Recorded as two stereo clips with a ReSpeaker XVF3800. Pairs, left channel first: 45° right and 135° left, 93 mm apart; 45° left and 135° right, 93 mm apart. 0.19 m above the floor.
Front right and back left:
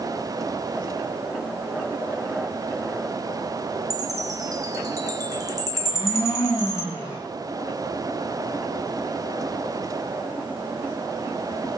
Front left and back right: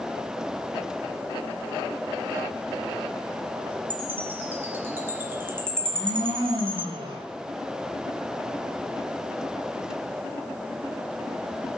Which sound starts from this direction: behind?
A chime, at 3.9 s.